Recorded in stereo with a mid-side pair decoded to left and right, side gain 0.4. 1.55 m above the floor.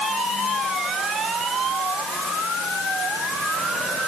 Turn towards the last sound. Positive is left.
No sound to turn to.